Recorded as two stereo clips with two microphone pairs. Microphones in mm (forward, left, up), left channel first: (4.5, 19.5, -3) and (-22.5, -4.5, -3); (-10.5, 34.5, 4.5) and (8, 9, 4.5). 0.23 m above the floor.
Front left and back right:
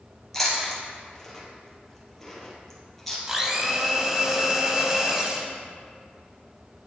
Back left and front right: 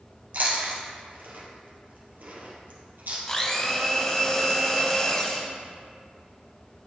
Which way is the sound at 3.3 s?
170° left.